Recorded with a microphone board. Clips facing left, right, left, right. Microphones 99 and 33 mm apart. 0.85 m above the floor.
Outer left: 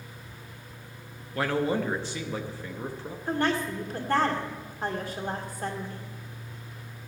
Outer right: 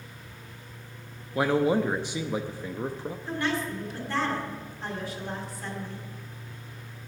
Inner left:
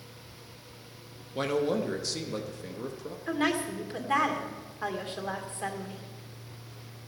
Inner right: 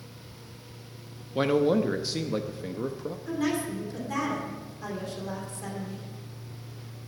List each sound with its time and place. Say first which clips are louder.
1.4 s a man speaking: outer right 3 dB, inner right 5 dB; 15° right (ahead or behind), 0.7 m
3.3 s a woman speaking: outer left 3 dB, inner left 1 dB; 45° left (ahead or behind), 2 m